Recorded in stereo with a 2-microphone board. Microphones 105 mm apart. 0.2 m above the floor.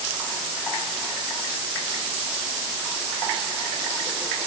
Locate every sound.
Only background noise.